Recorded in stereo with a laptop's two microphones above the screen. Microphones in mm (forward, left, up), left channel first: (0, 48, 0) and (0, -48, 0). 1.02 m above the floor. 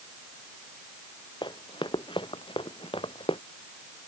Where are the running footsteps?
55° left (ahead or behind); by 3.4 s 75° left (ahead or behind).